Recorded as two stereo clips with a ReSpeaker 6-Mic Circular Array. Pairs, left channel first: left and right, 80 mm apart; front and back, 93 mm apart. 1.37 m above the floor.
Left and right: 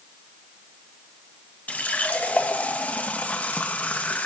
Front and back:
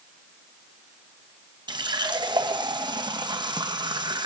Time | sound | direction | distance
1.7 | a running tap | 160° left | 0.8 m